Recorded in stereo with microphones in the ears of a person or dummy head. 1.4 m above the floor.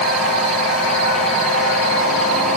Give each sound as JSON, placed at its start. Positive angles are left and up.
{"t": 0.0, "sound": "a machine running", "side_deg": 5, "distance_m": 10.0}